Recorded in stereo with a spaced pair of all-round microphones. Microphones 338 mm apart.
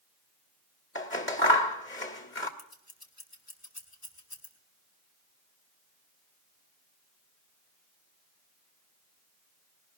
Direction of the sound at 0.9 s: 35° left (ahead or behind).